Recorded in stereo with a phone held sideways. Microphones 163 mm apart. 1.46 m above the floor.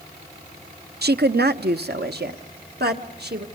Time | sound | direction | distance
1.0 | a woman speaking | 80° right | 0.6 m